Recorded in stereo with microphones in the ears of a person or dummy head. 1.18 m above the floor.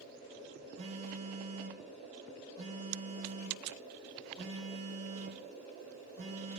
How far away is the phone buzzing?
About 0.7 m.